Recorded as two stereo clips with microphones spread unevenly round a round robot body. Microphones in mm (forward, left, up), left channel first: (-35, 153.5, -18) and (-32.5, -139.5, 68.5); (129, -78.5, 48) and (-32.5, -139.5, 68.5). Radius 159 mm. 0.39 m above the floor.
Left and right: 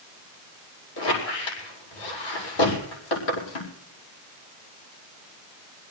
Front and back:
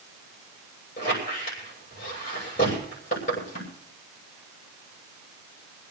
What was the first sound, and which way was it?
A squeak, 85° left.